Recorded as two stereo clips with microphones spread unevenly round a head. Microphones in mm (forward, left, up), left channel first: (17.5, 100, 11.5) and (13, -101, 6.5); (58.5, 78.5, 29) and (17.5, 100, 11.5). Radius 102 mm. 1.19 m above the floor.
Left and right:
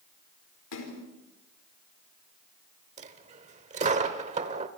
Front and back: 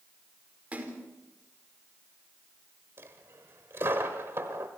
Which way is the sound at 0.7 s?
90° left.